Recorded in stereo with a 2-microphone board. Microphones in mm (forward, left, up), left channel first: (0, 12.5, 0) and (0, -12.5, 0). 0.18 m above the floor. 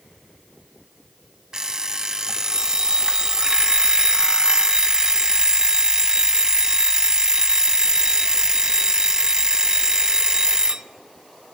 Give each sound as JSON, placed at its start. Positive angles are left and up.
{"t": 1.5, "sound": "an alarm clock", "side_deg": -25, "distance_m": 0.7}